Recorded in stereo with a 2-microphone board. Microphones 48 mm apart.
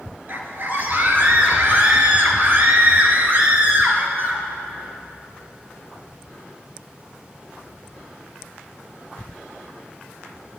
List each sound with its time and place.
0.3 s a scream: 45° right (ahead or behind), 2.5 m